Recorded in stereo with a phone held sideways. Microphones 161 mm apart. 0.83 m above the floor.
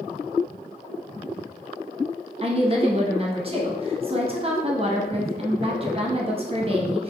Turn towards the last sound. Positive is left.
turn(degrees=-35)  # may be behind; listen again after turning